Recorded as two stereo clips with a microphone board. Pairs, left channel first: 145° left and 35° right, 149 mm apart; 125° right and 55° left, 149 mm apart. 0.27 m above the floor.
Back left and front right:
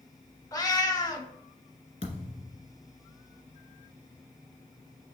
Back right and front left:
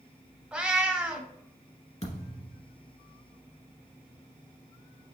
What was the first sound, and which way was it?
A cat meowing, 130° left.